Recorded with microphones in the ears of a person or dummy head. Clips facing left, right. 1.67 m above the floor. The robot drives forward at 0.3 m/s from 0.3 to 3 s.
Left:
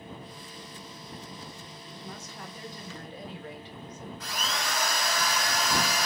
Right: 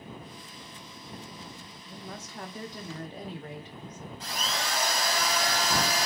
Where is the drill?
30° right (ahead or behind), 0.8 m.